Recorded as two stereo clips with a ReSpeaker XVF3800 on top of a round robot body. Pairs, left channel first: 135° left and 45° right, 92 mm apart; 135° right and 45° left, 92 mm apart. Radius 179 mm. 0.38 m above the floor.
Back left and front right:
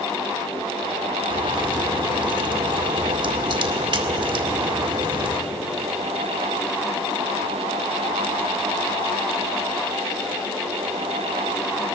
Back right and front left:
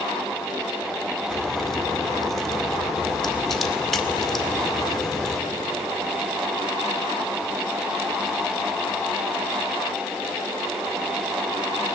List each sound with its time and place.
1.3 s a crack: 50° right, 2 m